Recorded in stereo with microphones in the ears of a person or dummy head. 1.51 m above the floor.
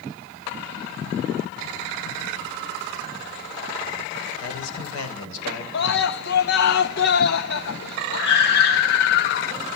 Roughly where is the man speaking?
Left.